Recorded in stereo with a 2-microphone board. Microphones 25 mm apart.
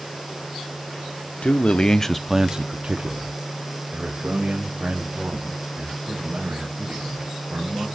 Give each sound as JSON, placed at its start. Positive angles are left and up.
{"t": 1.4, "sound": "a man speaking", "side_deg": 55, "distance_m": 1.1}